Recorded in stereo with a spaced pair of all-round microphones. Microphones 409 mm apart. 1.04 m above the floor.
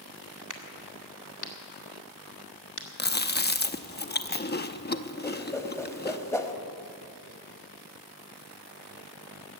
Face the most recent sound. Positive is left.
turn(degrees=5)  # may be behind; listen again after turning